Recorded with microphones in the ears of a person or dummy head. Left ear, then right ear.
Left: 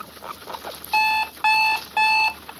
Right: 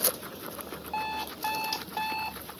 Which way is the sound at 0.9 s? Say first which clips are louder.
Left 14 dB; 50° left (ahead or behind).